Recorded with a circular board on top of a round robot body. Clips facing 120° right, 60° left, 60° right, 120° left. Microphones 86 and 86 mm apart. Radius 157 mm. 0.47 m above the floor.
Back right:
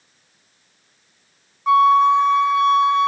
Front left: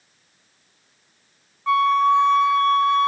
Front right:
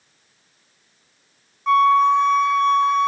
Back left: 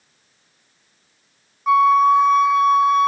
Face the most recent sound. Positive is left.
turn(degrees=-170)